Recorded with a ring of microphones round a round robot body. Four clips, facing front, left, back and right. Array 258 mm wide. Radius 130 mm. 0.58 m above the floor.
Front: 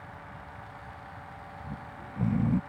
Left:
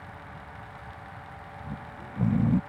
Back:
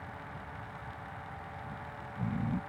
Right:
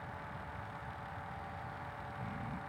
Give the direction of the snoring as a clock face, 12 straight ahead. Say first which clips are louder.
Left 5 dB, front 1 dB; 10 o'clock.